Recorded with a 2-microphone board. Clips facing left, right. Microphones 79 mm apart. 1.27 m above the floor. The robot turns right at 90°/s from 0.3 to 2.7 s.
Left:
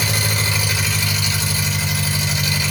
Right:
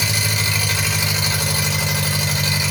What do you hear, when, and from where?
0.0 s an engine running: 135° left, 1.0 m; by 2.7 s 10° right, 1.0 m